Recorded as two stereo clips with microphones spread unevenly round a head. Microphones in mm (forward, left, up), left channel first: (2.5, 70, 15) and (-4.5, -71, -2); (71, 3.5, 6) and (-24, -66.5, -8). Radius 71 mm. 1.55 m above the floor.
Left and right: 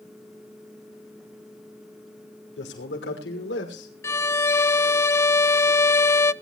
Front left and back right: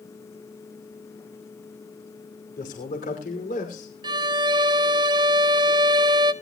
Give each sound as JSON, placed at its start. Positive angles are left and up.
{"t": 2.6, "sound": "a man speaking", "azimuth_deg": 75, "distance_m": 6.0}
{"t": 4.0, "sound": "a violin", "azimuth_deg": 155, "distance_m": 0.5}